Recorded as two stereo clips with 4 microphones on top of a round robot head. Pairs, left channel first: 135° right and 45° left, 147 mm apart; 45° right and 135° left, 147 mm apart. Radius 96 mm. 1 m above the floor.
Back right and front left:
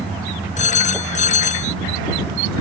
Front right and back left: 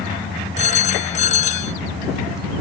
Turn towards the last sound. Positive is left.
turn(degrees=-90)